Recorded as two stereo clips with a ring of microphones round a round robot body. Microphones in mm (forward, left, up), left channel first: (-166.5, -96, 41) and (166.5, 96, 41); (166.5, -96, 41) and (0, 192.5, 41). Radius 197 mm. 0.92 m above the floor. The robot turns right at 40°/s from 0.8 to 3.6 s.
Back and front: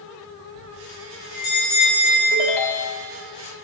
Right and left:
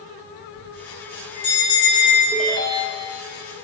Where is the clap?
No clap in this recording.